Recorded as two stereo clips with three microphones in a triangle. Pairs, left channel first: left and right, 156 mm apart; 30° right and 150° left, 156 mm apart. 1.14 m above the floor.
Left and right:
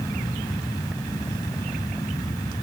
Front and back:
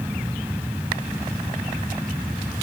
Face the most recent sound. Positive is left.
No sound to turn to.